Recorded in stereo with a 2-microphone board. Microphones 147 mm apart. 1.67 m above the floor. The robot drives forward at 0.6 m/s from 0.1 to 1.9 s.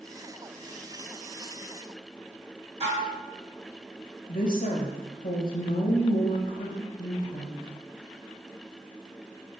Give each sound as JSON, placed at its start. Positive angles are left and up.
{"t": 2.8, "sound": "dishes clattering", "side_deg": -50, "distance_m": 3.0}
{"t": 4.3, "sound": "a woman speaking", "side_deg": 85, "distance_m": 1.9}